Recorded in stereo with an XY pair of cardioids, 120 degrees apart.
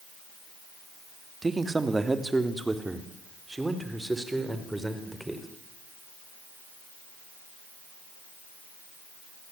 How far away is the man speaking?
About 2.5 m.